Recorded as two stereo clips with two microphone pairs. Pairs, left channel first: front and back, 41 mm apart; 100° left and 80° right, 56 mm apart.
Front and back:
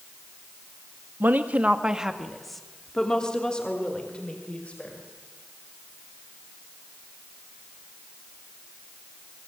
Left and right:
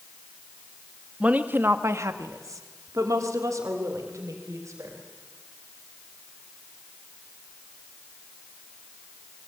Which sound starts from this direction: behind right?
A woman speaking, at 1.2 s.